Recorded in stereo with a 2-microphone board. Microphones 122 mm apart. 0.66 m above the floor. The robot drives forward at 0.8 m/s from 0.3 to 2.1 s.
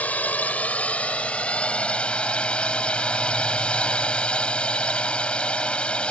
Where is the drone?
15° left (ahead or behind); by 6.1 s 10° left (ahead or behind).